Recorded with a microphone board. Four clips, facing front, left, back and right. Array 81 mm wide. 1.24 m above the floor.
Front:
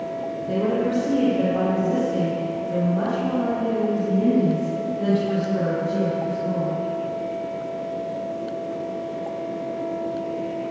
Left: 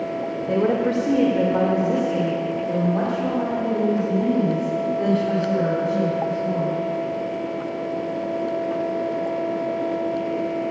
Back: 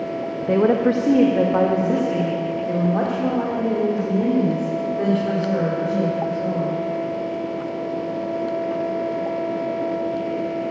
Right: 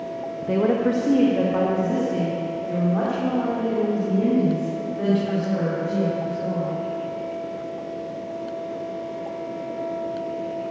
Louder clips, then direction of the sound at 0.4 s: Even, back 6 dB; 170° right.